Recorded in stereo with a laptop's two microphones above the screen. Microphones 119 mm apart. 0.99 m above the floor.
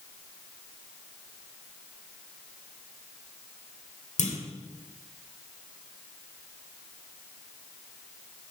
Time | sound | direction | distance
4.2 | a clunk | 80° left | 1.9 m